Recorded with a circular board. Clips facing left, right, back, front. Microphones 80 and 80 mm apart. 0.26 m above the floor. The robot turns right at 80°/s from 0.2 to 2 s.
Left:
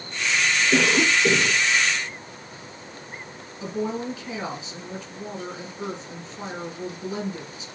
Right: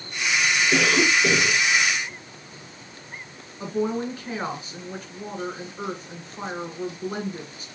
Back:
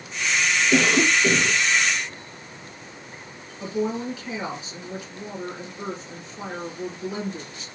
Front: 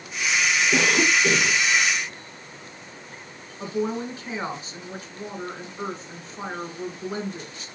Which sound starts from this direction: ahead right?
A woman speaking, at 3.6 s.